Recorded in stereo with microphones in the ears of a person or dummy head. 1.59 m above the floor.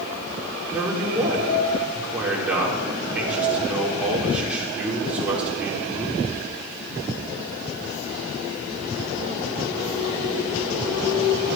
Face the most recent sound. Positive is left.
turn(degrees=-10)  # may be behind; listen again after turning